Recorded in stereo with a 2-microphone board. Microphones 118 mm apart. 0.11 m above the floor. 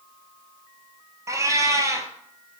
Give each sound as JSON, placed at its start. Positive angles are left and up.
{"t": 1.3, "sound": "a cat meowing", "side_deg": -25, "distance_m": 0.5}